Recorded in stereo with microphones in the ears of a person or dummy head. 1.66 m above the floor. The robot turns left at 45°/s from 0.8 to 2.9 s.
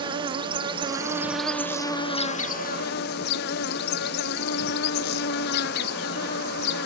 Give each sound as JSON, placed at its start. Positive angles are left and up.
{"t": 0.0, "sound": "an insect", "azimuth_deg": -150}